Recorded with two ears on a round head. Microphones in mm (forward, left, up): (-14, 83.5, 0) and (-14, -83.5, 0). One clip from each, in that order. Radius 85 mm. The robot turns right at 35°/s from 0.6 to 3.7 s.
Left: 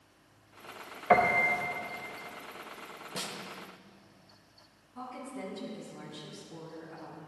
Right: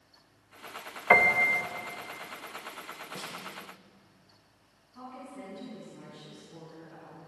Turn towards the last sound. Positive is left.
turn(degrees=15)  # may be behind; listen again after turning